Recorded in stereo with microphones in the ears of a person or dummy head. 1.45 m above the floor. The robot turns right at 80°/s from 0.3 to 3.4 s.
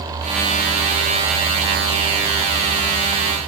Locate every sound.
Only background noise.